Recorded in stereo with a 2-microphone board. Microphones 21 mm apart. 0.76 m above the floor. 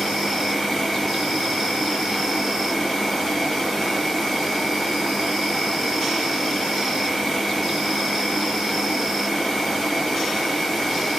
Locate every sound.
0.0 s an insect: 10° left (ahead or behind), 1.6 m